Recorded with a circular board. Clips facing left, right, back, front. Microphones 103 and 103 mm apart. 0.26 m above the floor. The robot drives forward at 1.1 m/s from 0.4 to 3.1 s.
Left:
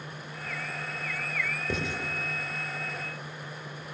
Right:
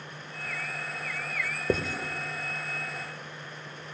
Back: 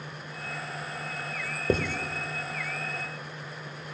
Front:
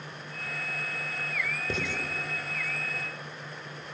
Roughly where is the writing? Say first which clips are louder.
Right 7 dB, back 10 dB; behind right.